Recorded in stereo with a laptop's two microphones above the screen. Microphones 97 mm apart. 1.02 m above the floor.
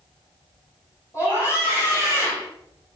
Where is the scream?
30° left (ahead or behind), 3 m.